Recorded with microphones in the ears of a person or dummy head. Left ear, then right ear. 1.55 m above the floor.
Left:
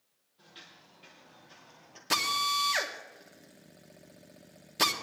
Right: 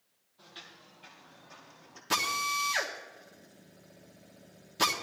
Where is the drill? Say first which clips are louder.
Left 2 dB; 15° left (ahead or behind), 1.1 m.